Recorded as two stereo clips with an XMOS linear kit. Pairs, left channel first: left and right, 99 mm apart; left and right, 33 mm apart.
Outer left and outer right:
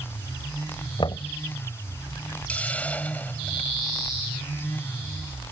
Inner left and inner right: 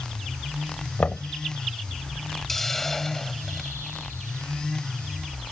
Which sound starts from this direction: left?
Knocking, at 1.0 s.